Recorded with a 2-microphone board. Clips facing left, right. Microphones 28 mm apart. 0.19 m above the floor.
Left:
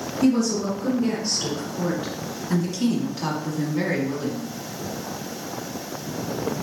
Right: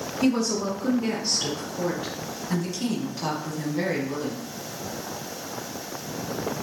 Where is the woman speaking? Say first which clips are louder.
Left 3 dB; 15° right (ahead or behind), 1.7 m; by 4.5 s 15° left (ahead or behind), 1.6 m.